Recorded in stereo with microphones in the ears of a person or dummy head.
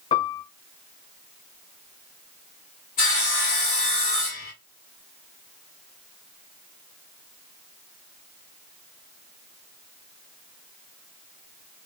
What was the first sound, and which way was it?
A piano, 25° left (ahead or behind).